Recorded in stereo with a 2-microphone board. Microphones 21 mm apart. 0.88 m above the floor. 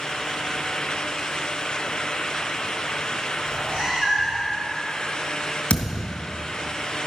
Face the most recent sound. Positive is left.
turn(degrees=65)  # may be behind; listen again after turning